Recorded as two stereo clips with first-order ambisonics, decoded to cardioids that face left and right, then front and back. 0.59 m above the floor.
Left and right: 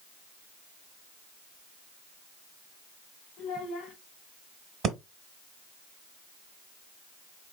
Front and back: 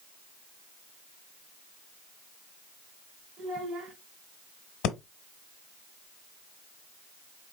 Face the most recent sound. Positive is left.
turn(degrees=-30)